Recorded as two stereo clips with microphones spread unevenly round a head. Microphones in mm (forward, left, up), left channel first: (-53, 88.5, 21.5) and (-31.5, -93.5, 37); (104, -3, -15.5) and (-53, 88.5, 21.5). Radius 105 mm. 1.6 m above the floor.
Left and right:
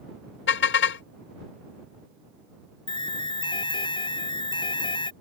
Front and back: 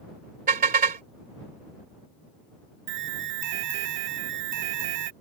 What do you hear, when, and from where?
0.5 s a car horn: 115° left
2.9 s an alarm: 160° left